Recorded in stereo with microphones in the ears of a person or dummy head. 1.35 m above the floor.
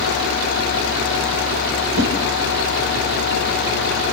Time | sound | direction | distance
1.9 | a whoosh | 80° right | 4 m